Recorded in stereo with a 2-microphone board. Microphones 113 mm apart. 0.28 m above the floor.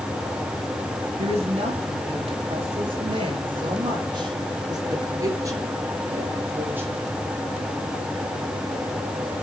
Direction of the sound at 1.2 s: 60° right (ahead or behind).